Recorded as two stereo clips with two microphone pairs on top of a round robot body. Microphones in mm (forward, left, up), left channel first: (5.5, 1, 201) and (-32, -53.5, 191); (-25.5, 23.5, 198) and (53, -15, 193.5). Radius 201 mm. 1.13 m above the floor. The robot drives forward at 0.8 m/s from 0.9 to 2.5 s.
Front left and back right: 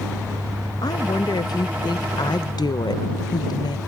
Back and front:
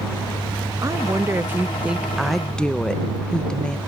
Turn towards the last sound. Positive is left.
turn(degrees=75)